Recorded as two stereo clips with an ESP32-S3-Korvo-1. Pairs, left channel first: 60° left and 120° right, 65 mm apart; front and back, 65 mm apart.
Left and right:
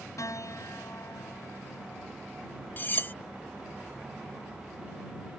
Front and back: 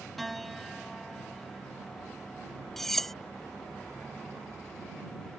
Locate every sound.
0.2 s a piano: 90° left
2.8 s cutlery clinking: 80° left